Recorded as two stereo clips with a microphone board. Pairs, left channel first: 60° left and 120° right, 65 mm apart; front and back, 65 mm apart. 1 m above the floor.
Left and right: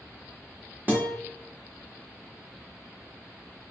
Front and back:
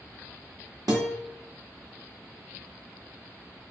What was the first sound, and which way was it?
A guitar, straight behind.